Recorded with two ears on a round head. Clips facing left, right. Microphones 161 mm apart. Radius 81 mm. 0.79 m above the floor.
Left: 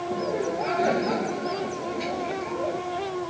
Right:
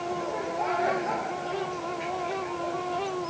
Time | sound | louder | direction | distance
0.1 | laughter | left 7 dB | 35° left (ahead or behind) | ?